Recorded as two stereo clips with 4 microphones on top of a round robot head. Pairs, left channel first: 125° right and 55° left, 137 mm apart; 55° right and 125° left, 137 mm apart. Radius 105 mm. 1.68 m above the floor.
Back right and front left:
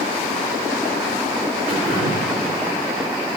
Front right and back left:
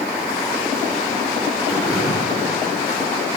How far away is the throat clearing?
About 2 m.